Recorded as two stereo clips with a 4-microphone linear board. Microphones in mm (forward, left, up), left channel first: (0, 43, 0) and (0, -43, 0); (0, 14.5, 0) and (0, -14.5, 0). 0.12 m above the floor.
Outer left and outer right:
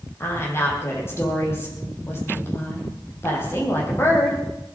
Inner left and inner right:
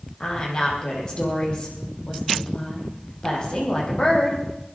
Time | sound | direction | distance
0.2 | a woman speaking | 30° left (ahead or behind) | 5 m